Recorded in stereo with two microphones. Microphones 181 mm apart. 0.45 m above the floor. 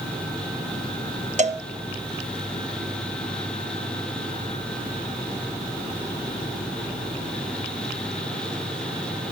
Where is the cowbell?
40° right (ahead or behind), 0.5 m.